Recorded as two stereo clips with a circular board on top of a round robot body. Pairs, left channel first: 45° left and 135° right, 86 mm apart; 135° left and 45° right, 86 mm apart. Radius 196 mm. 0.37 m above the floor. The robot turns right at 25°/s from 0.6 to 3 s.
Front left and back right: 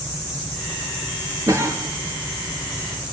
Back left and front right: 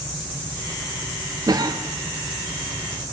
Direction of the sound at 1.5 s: 90° right.